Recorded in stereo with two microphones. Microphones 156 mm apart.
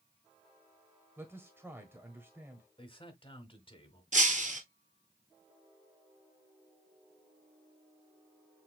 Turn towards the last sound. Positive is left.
turn(degrees=-55)  # may be behind; listen again after turning